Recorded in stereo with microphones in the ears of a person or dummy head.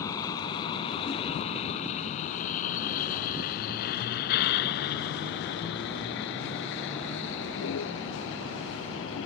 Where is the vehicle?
30° left (ahead or behind); by 9.3 s 85° left.